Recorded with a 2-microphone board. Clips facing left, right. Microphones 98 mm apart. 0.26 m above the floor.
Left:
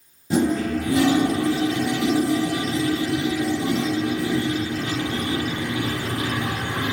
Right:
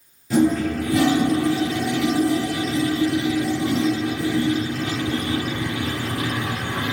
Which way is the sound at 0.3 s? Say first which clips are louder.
Right 2 dB; 25° left (ahead or behind).